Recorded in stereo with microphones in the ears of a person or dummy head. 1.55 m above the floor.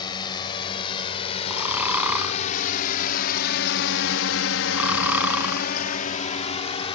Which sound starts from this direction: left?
A drone, at 0.0 s.